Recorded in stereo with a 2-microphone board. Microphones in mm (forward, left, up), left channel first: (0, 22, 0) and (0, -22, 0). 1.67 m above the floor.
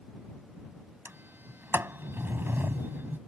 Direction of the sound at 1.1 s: 55° right (ahead or behind).